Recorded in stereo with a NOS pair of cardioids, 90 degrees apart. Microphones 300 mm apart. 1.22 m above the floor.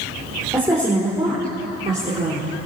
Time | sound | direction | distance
0.5 | a woman speaking | 10° right | 4 m